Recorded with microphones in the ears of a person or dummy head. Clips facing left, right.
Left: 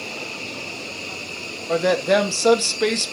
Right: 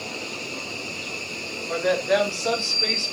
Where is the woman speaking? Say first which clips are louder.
Left 4 dB; 45° left (ahead or behind), 1.4 m; by 3.1 s 75° left (ahead or behind), 0.9 m.